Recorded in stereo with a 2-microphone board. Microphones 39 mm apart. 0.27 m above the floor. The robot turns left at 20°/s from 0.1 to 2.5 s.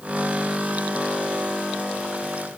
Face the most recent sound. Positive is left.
No sound to turn to.